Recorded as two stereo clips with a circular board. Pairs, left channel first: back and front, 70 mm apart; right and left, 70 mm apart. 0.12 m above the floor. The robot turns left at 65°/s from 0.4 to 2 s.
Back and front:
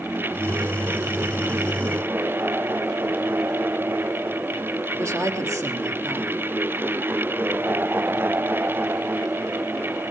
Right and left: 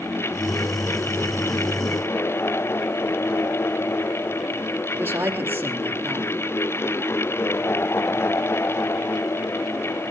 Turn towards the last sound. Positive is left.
turn(degrees=35)